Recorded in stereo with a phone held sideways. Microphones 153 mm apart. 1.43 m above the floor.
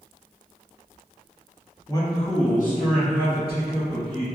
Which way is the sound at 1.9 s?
20° left (ahead or behind).